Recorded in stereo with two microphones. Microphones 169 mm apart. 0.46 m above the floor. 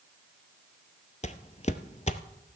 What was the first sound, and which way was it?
Footsteps, 40° left (ahead or behind).